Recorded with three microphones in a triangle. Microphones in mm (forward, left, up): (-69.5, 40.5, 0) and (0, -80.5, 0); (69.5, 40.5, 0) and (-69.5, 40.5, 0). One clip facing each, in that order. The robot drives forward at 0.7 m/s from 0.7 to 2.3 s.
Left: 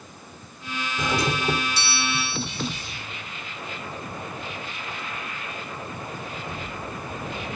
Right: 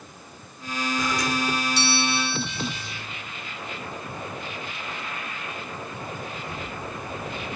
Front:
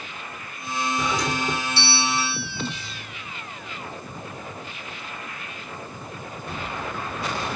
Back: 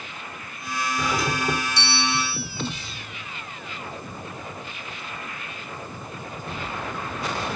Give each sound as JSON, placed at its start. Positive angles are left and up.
{"t": 1.0, "sound": "a doorbell", "azimuth_deg": 90}